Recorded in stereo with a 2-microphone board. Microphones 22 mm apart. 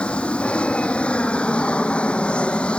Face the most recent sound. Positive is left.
turn(degrees=55)  # may be behind; listen again after turning